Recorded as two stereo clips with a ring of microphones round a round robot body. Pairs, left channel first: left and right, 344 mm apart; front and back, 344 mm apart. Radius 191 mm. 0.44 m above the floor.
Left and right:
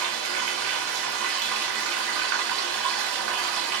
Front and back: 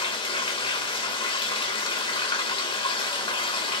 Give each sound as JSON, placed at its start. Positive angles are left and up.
{"t": 0.0, "sound": "running water", "azimuth_deg": -75, "distance_m": 0.9}